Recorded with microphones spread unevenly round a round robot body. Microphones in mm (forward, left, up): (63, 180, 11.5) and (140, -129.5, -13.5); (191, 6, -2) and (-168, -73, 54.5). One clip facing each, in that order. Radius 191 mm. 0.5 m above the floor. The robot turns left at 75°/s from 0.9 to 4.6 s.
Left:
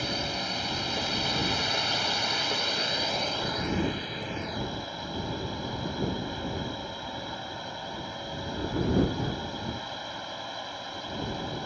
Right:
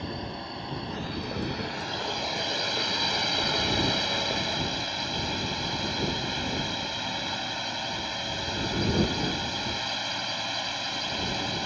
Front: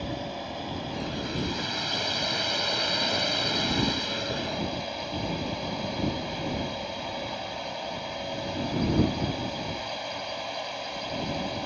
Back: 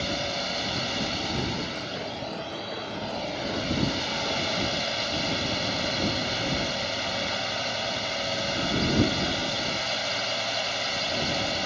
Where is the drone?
150° left; by 11.7 s 125° right.